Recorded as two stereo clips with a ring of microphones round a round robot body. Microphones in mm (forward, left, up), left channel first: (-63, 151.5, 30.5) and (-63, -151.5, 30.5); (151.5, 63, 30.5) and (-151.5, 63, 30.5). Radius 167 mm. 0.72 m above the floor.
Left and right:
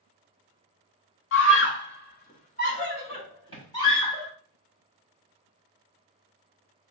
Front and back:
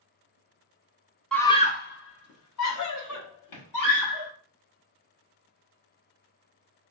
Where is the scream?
85° left, 0.9 m; by 4.3 s 10° left, 3 m.